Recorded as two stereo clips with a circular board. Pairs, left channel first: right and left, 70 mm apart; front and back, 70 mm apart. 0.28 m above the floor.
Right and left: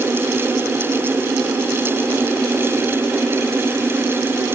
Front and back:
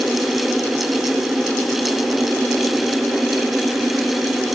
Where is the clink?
No clink in this recording.